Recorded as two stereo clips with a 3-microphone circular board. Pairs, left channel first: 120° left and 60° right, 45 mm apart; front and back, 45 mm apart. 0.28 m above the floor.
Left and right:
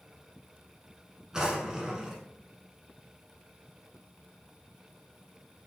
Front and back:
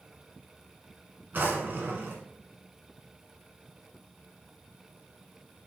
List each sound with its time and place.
1.3 s a drawer: 135° right, 1.1 m